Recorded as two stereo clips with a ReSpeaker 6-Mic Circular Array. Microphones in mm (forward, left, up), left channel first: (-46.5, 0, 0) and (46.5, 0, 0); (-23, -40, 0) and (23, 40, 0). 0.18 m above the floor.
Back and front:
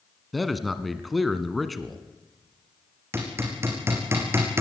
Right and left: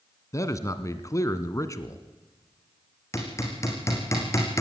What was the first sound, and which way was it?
A man speaking, 90° right.